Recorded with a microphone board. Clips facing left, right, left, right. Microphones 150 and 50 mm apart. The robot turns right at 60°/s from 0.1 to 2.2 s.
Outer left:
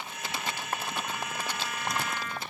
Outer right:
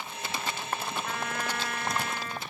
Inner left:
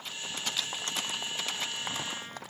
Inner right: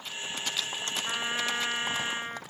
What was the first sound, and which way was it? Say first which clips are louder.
A trumpet: outer right 2 dB, inner right 5 dB; 105° right.